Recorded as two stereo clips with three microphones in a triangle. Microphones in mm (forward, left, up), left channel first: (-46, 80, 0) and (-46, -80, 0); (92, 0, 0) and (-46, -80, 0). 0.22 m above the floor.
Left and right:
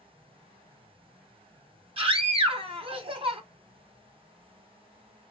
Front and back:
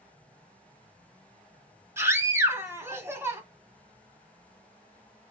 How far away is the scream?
About 1.3 m.